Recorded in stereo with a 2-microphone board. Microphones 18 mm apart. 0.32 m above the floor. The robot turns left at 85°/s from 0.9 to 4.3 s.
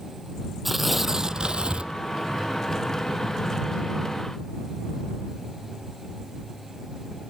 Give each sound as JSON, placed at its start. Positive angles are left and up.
{"t": 0.7, "sound": "tearing paper", "azimuth_deg": -10}